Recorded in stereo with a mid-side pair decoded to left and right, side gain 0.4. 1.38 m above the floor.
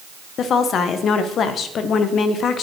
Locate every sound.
0.4 s a woman speaking: 70° left, 0.9 m